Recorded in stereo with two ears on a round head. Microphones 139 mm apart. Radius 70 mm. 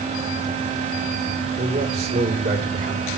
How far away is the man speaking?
About 5 m.